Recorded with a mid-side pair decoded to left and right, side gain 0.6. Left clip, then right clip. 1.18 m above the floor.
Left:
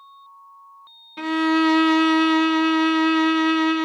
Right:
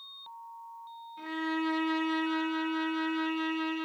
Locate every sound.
1.2 s a violin: 70° left, 0.5 m